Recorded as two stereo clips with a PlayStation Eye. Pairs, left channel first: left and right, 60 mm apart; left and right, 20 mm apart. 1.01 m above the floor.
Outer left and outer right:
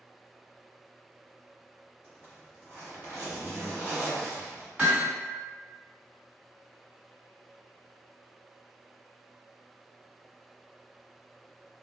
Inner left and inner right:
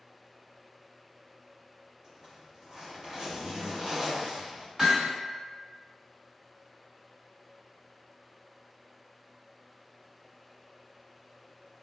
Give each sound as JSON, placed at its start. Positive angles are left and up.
{"t": 2.0, "sound": "a zipper", "side_deg": -35, "distance_m": 1.2}
{"t": 4.8, "sound": "hammering", "side_deg": -25, "distance_m": 1.5}